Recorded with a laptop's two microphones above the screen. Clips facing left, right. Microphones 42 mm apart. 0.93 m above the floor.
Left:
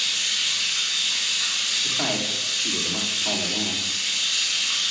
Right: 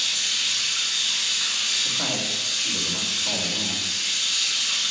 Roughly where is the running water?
Left.